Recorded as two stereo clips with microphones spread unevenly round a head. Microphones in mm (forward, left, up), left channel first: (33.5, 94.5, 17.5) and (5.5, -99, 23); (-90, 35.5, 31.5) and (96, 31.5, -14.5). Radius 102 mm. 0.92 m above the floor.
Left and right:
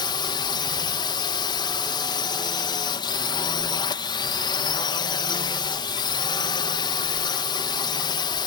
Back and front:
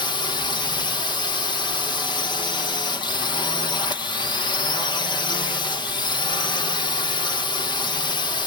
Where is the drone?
110° left.